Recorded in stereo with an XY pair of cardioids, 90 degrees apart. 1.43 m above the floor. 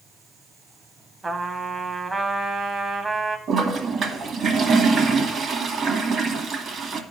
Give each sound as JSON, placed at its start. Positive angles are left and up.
{"t": 1.2, "sound": "a trumpet", "azimuth_deg": -30, "distance_m": 0.9}
{"t": 3.5, "sound": "a toilet flushing", "azimuth_deg": -65, "distance_m": 1.6}